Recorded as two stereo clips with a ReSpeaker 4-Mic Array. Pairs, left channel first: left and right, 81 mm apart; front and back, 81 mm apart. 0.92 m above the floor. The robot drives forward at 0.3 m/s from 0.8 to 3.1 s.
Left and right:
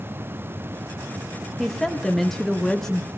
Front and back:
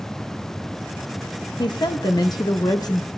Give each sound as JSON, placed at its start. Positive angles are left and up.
{"t": 1.6, "sound": "a woman speaking", "azimuth_deg": 5, "distance_m": 1.2}